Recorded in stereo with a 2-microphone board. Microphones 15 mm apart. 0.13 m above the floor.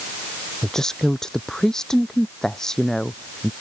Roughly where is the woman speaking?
Left.